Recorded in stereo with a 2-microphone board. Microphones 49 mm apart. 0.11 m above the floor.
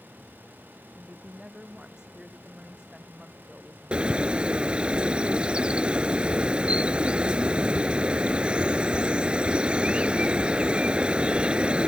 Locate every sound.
0.9 s a woman speaking: 15° right (ahead or behind)
3.9 s a bird: 25° right (ahead or behind)